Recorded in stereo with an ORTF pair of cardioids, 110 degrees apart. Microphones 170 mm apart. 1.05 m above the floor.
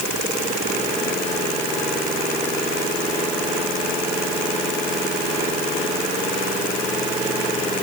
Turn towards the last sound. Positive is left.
No sound to turn to.